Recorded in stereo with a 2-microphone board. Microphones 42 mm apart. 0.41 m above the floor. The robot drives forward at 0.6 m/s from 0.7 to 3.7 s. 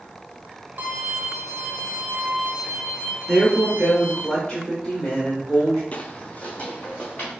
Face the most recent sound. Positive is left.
turn(degrees=35)  # may be behind; listen again after turning